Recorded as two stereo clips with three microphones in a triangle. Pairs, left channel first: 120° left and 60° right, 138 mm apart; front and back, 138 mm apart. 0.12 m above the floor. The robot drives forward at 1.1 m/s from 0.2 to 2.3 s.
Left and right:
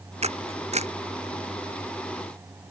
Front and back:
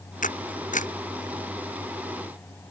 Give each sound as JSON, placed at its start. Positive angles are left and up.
{"t": 0.2, "sound": "a camera shutter", "azimuth_deg": -20}